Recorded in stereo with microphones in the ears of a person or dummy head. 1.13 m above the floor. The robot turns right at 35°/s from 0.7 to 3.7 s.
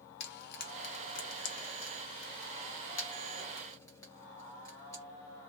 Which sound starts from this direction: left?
Frying, at 0.2 s.